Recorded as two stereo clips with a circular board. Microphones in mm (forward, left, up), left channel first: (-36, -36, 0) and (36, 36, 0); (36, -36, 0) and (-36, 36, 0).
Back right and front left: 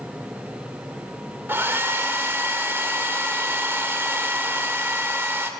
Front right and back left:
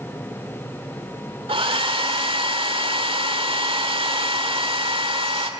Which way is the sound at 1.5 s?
115° left.